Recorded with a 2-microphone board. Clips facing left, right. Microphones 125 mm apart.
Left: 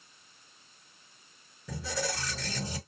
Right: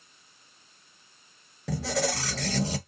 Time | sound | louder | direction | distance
1.7 | a squeak | right 6 dB | 80° right | 0.9 m